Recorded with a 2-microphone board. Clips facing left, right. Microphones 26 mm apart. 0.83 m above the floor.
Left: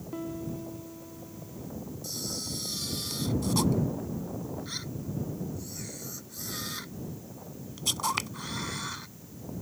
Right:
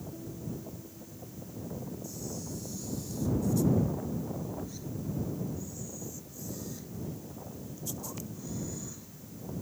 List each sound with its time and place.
0.1 s a piano: 75° left (ahead or behind)
2.0 s a camera shutter: 75° left (ahead or behind)